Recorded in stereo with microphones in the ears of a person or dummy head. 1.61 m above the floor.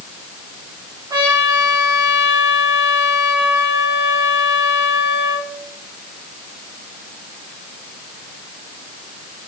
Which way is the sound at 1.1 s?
25° right (ahead or behind).